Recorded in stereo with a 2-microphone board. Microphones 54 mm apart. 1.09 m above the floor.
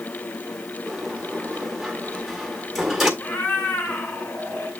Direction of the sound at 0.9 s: 5° right (ahead or behind).